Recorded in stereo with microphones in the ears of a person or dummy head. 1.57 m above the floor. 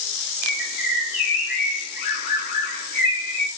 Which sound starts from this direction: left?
A bird, at 0.4 s.